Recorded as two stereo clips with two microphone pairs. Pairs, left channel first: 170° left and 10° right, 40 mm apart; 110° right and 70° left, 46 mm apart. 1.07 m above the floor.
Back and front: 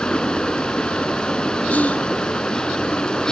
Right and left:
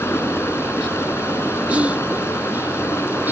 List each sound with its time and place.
0.0 s running water: 120° right
1.7 s whispering: 130° left